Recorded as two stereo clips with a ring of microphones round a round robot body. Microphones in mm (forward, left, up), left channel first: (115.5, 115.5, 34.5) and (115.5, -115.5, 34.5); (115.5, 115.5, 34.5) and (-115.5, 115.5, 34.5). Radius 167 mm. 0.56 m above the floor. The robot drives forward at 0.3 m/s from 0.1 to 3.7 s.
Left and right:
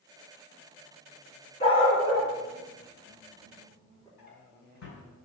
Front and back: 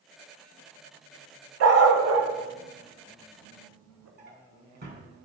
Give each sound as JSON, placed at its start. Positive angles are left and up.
{"t": 1.6, "sound": "a dog barking", "azimuth_deg": 160, "distance_m": 1.1}
{"t": 4.2, "sound": "a drawer", "azimuth_deg": 135, "distance_m": 2.0}